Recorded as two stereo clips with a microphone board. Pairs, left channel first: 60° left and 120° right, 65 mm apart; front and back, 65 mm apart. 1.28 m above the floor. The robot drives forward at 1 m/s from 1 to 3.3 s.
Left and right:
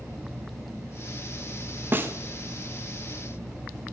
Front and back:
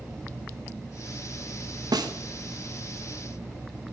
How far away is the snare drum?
About 1.2 m.